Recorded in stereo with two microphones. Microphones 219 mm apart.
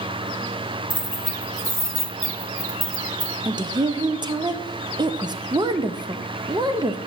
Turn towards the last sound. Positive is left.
turn(degrees=-20)  # may be behind; listen again after turning